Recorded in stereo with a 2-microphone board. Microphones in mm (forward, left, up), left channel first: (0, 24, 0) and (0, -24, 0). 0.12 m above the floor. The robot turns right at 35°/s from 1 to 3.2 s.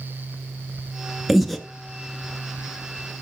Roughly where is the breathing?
Centre.